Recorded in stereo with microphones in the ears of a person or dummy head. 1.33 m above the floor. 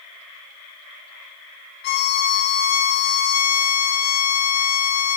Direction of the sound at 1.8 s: 55° left (ahead or behind).